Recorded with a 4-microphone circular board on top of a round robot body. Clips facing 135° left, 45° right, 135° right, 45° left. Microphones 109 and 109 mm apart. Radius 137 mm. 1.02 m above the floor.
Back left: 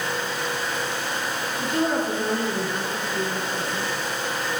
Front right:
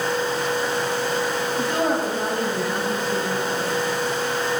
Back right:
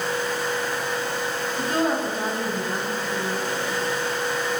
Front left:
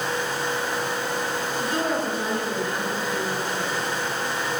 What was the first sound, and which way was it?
A woman speaking, 80° right.